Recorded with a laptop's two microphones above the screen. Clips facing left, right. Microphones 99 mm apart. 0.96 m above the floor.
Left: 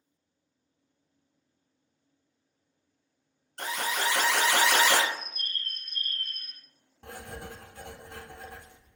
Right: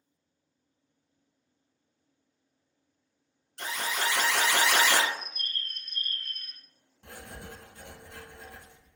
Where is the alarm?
50° left (ahead or behind), 0.8 m.